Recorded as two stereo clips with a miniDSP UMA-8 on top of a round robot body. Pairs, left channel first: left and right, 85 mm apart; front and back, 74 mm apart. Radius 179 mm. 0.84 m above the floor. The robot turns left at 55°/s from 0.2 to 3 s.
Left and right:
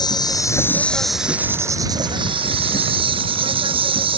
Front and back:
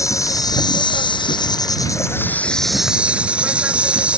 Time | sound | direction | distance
0.0 | an insect | 50° left | ?